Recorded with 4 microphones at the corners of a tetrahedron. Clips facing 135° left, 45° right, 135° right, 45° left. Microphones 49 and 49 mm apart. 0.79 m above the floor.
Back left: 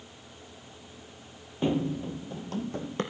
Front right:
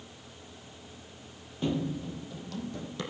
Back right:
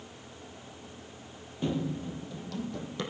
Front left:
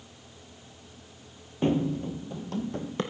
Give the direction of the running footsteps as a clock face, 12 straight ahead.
9 o'clock.